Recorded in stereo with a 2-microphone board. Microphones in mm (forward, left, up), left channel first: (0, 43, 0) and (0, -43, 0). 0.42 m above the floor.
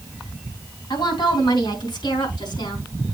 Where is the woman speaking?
65° left (ahead or behind), 3 m.